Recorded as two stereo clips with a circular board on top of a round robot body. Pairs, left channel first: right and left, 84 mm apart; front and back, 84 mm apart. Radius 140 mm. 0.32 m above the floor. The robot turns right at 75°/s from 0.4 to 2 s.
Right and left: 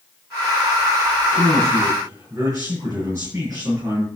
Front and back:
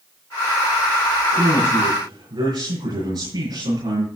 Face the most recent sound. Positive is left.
turn(degrees=150)